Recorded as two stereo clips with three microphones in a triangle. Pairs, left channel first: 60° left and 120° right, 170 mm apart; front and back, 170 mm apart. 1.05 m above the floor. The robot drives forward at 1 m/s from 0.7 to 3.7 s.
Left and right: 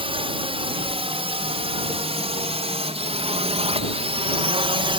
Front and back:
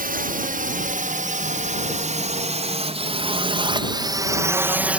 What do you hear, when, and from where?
0.0 s a drone: 170° right; by 5.0 s 100° right